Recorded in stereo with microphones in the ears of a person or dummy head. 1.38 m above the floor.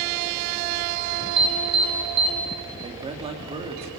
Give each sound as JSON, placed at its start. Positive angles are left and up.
{"t": 1.4, "sound": "an alarm", "side_deg": -25, "distance_m": 1.4}
{"t": 2.8, "sound": "a man speaking", "side_deg": -25, "distance_m": 3.5}